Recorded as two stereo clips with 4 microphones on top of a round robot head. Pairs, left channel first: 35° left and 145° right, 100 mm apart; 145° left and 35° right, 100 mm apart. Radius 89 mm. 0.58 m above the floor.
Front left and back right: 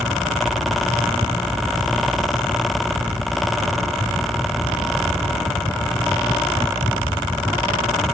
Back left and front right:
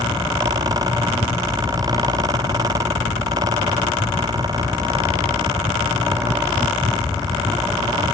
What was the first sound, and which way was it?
Only background noise.